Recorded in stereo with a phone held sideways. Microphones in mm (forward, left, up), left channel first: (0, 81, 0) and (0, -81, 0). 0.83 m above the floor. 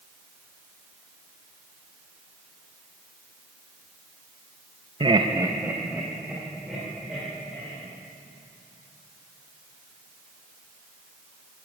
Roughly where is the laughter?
Right.